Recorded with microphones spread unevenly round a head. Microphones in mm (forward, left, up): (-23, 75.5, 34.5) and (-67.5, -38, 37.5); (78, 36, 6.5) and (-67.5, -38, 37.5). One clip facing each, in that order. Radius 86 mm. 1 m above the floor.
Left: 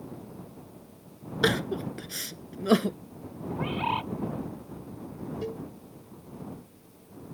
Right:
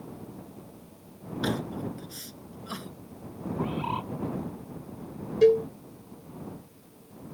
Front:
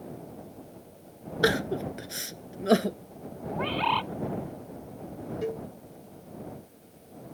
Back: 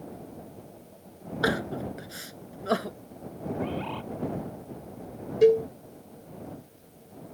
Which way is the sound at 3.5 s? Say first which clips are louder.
Left 1 dB, front 3 dB; 20° left.